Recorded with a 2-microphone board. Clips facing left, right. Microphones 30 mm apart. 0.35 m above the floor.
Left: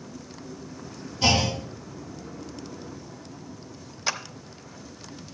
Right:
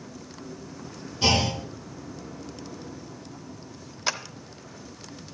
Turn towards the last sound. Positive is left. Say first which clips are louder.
# even
turn(degrees=-10)  # may be behind; listen again after turning